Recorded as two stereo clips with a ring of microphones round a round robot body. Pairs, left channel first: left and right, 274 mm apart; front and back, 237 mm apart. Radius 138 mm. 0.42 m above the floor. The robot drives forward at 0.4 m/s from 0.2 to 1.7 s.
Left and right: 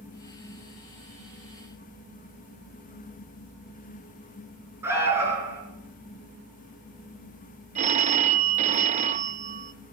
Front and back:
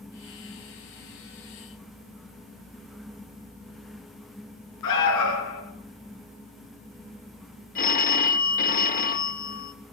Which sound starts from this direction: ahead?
An alarm, at 4.8 s.